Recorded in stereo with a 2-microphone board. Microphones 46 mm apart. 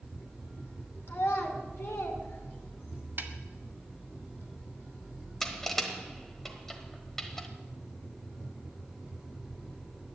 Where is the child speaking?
60° left (ahead or behind), 2.5 m; by 3.1 s 65° left (ahead or behind), 2.5 m.